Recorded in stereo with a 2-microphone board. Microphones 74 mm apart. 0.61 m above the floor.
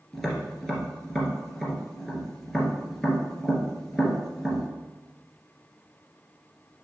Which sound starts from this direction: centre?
Tapping, at 0.1 s.